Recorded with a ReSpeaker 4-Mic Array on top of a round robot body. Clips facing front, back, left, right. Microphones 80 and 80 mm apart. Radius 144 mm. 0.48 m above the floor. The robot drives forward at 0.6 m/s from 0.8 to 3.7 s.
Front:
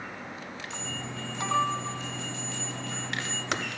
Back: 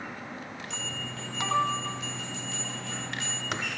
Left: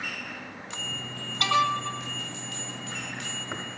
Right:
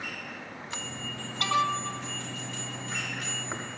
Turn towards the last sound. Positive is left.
turn(degrees=115)